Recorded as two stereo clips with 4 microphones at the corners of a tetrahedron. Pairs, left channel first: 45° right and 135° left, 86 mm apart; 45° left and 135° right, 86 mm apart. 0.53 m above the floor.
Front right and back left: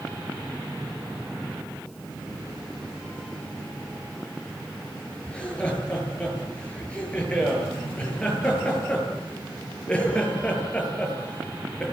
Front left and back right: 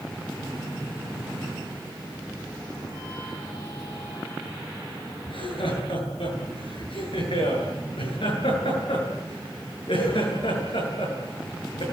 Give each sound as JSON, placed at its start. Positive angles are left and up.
{"t": 5.3, "sound": "laughter", "azimuth_deg": 30, "distance_m": 10.0}